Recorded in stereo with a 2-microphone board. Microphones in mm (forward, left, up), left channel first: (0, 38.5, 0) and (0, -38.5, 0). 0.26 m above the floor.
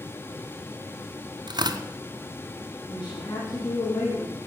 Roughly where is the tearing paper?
Right.